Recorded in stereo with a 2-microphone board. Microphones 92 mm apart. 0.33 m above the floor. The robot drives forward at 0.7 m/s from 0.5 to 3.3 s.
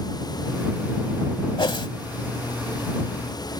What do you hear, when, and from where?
1.6 s a whoosh: 65° left (ahead or behind); by 1.9 s 60° left (ahead or behind)